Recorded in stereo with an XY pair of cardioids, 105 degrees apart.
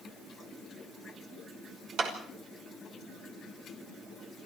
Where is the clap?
65° right, 5.5 m.